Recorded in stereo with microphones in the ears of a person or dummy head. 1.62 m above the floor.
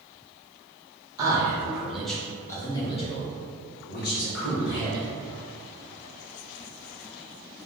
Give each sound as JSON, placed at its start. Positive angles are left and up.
{"t": 1.2, "sound": "a man speaking", "side_deg": -15, "distance_m": 1.3}